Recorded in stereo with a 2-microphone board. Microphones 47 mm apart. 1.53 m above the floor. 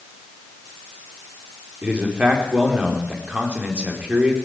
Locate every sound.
1.8 s a man speaking: 20° right (ahead or behind), 5 m